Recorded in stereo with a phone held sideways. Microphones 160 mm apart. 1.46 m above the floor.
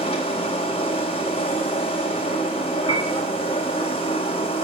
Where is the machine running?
35° left (ahead or behind), 3.5 m.